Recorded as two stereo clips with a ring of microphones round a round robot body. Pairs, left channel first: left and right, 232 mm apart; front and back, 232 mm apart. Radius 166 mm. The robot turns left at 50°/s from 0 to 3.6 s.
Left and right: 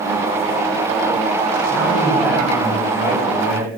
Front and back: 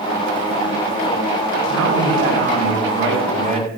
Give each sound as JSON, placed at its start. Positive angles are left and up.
{"t": 1.7, "sound": "a man speaking", "azimuth_deg": -145, "distance_m": 4.0}